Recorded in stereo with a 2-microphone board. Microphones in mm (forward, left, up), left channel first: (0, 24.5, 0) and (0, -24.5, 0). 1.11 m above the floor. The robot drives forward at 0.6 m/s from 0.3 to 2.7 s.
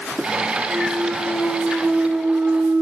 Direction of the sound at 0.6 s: 25° right (ahead or behind).